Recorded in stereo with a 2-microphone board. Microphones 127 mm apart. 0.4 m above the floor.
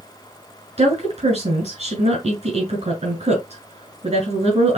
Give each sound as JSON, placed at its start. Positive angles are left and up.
{"t": 0.8, "sound": "a woman speaking", "side_deg": -50, "distance_m": 2.5}